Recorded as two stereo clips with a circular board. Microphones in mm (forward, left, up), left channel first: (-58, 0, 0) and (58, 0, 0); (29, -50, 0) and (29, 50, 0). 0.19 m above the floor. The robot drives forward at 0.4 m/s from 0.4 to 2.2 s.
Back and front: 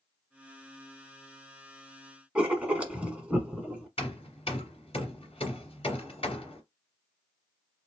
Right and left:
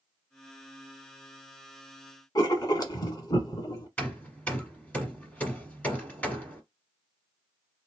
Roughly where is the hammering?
Behind.